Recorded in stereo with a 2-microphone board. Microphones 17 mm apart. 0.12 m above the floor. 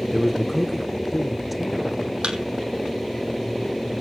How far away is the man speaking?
About 2 m.